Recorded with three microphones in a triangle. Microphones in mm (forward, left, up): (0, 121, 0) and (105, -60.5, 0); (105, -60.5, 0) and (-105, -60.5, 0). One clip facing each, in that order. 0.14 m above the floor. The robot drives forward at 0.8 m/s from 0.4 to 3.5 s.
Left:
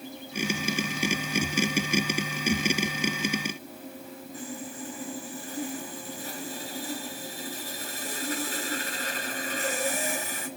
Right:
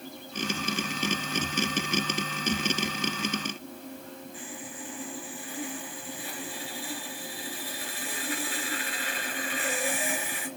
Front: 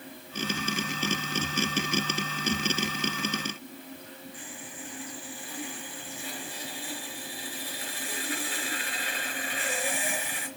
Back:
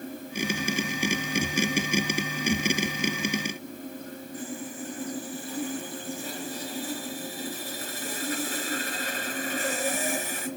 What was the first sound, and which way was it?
Sawing, 150° left.